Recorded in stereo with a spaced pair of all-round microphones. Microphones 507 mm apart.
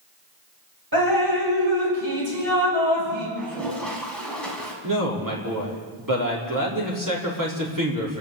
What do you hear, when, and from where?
0.9 s dripping: 45° right (ahead or behind), 6.5 m
3.4 s a toilet flushing: centre (ahead or behind), 4.5 m
4.8 s a man speaking: 40° right (ahead or behind), 5 m